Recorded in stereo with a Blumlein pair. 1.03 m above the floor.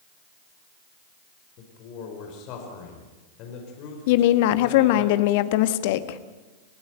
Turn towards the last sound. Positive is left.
turn(degrees=50)